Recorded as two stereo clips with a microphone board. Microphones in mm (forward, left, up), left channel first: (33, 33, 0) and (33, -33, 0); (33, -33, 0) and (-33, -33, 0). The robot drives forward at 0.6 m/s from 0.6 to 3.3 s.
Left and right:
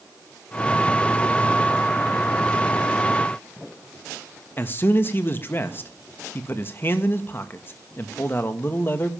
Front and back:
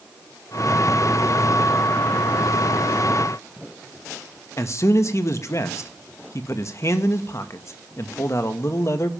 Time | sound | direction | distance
4.6 | a man speaking | 35° left | 1.6 m